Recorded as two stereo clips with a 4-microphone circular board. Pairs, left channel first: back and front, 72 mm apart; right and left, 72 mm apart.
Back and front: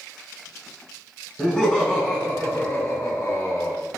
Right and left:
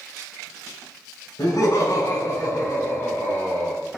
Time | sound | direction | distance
1.4 | laughter | 80° right | 1.9 m